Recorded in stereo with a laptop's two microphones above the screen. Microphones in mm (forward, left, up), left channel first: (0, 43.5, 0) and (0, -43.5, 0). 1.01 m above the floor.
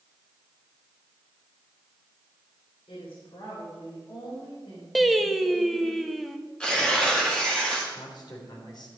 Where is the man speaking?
55° left (ahead or behind), 3 m.